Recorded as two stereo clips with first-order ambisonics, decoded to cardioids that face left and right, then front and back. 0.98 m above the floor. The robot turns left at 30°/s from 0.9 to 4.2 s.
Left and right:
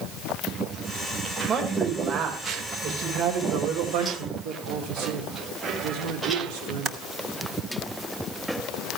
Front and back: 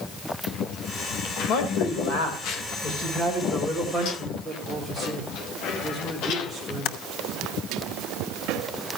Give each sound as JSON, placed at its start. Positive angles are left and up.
{"t": 1.5, "sound": "a man speaking", "azimuth_deg": -15, "distance_m": 4.0}
{"t": 4.4, "sound": "a man speaking", "azimuth_deg": -90, "distance_m": 3.5}
{"t": 6.8, "sound": "typing on a keyboard", "azimuth_deg": -35, "distance_m": 0.9}